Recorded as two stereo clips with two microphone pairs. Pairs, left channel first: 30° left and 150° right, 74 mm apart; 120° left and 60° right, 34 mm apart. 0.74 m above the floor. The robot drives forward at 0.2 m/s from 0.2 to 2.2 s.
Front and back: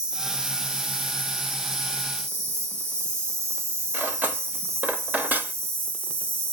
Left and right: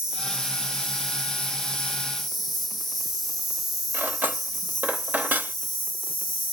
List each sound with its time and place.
0.0 s an insect: 105° right, 0.9 m; by 6.5 s 150° right, 1.0 m
3.9 s cutlery clinking: 85° right, 0.6 m